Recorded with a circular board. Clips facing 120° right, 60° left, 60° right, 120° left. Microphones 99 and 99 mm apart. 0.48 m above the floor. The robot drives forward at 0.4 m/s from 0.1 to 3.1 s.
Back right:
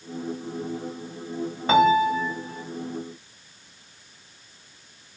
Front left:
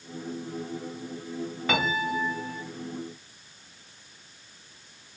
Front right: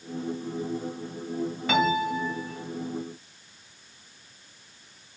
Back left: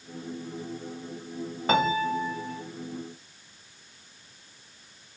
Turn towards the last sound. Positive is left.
turn(degrees=180)